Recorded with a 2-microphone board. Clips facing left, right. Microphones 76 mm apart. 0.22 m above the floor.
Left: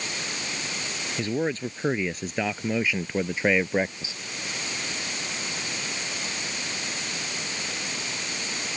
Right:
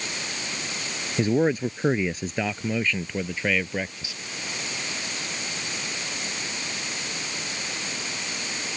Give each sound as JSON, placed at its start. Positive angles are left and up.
{"t": 1.2, "sound": "a man speaking", "side_deg": -20}